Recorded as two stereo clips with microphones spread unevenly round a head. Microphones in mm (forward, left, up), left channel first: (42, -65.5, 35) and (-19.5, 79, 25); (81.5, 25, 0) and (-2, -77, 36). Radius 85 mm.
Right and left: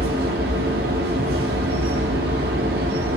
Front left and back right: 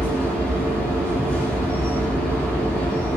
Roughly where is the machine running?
Behind left.